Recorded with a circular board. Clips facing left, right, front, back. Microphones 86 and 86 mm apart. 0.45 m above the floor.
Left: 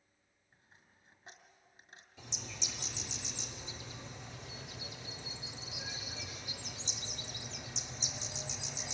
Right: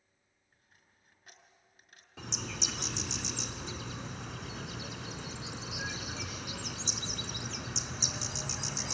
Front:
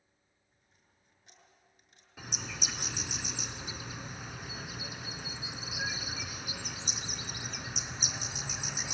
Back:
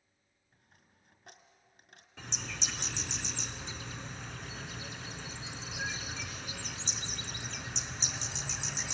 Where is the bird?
80° right, 0.8 m.